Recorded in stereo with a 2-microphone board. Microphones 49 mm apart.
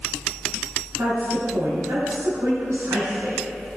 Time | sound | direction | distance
1.0 | a woman speaking | 80° right | 4 m